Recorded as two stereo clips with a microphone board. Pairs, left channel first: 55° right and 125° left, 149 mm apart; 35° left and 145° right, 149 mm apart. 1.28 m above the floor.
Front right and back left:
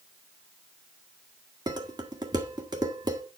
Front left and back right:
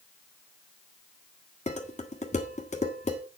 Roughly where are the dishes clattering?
Ahead left.